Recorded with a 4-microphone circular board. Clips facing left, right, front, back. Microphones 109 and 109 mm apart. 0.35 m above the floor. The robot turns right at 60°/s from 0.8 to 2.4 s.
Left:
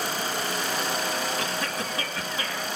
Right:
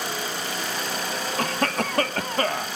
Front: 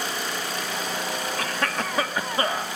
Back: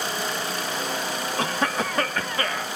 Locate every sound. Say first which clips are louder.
1.4 s a cough: right 5 dB, back 5 dB; 120° right, 2.0 m; by 2.7 s 60° right, 2.0 m